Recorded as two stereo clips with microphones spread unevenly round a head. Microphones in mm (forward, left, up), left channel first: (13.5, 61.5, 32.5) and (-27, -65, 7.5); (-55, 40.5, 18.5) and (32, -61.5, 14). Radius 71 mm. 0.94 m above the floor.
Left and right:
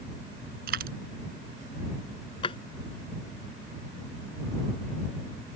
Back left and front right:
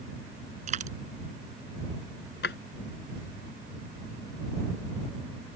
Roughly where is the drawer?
Behind left.